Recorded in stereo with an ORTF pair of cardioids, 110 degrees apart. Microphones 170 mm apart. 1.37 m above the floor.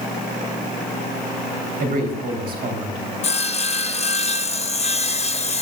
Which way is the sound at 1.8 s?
65° right.